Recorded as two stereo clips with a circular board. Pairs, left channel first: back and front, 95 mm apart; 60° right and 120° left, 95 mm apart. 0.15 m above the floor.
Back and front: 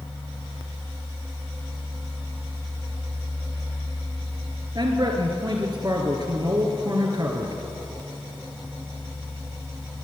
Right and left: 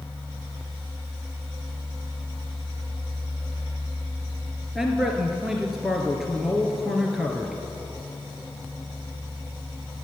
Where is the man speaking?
35° left, 2 m.